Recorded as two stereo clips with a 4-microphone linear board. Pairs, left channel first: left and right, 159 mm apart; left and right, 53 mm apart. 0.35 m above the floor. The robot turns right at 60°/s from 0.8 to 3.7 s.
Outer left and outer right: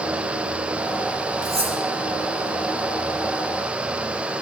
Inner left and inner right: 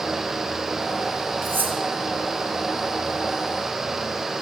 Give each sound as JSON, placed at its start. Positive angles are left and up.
{"t": 1.4, "sound": "cutlery clinking", "side_deg": -50, "distance_m": 1.1}